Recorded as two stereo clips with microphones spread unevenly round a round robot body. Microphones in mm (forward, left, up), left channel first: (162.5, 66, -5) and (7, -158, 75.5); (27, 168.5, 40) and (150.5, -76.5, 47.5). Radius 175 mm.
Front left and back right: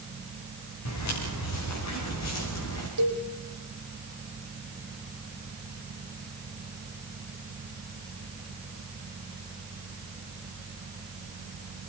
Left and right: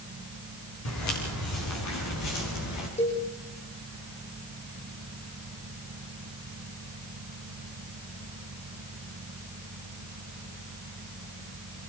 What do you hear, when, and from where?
0.8 s footsteps: 95° left, 8.5 m; by 2.9 s 105° left, 9 m
3.0 s a cowbell: 170° right, 6 m